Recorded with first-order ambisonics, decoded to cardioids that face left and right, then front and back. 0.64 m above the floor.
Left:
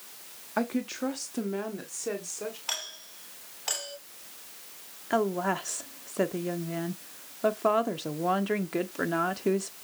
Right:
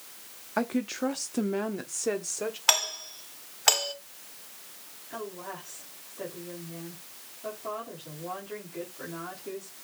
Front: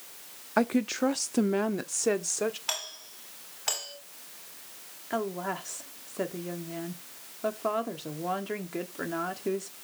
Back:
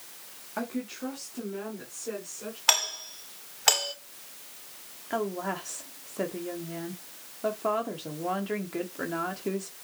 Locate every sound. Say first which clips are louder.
0.6 s a woman speaking: right 1 dB, front 8 dB; 5° right, 0.8 m; by 2.6 s 20° right, 1.6 m
2.7 s a doorbell: right 14 dB, back 9 dB; 130° right, 3 m
5.1 s a woman speaking: left 12 dB, back 1 dB; 90° left, 1.3 m